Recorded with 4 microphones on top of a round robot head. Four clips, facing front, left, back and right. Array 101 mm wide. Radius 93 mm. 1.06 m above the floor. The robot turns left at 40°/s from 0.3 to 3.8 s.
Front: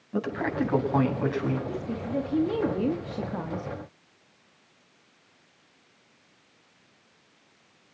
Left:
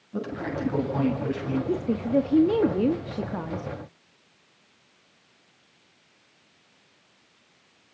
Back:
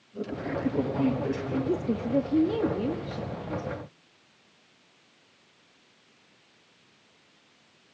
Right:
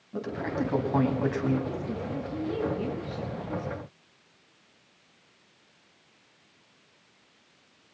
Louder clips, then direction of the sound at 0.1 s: Even, front 4 dB; 5° right.